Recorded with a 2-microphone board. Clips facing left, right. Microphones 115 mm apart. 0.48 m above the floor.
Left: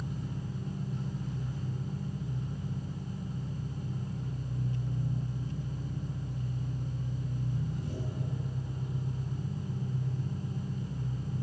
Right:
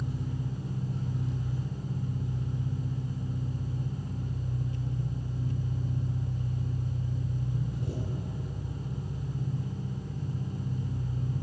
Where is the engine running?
70° right (ahead or behind), 5.5 m.